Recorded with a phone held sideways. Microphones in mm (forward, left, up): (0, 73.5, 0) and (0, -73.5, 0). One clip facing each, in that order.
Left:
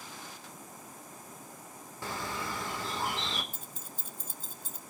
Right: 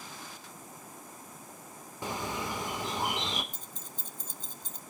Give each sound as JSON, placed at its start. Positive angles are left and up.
{"t": 2.0, "sound": "a bird", "side_deg": -20, "distance_m": 1.7}
{"t": 3.5, "sound": "keys jangling", "side_deg": 10, "distance_m": 0.6}